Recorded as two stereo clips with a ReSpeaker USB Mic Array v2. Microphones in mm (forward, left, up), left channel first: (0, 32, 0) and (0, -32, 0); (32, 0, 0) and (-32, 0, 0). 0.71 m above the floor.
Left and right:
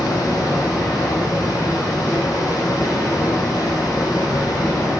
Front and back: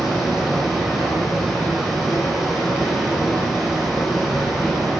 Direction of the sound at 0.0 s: 90° left.